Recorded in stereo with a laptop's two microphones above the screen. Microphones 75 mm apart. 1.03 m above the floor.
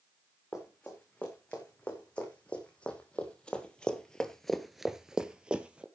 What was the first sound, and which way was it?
Running footsteps, 15° left (ahead or behind).